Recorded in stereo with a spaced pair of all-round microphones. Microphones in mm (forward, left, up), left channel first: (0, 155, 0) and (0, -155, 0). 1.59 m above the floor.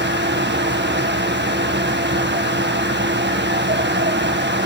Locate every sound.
0.0 s a fan: 35° right (ahead or behind), 1.8 m